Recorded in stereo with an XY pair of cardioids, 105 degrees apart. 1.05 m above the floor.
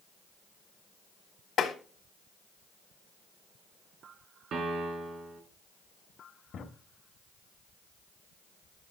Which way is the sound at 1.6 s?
60° left.